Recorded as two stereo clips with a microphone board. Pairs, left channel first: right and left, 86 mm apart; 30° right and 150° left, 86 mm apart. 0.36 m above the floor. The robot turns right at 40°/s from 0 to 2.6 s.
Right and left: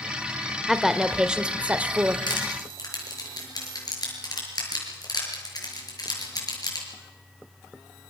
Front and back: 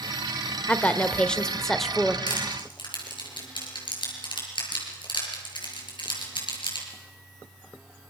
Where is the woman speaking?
5° left, 1.1 m; by 2.2 s 65° left, 1.1 m.